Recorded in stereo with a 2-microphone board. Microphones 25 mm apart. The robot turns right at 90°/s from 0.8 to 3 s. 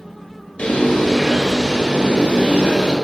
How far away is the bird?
About 1.7 m.